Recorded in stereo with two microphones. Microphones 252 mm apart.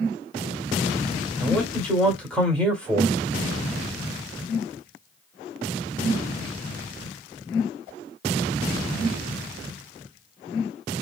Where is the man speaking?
5° left (ahead or behind), 1.2 m.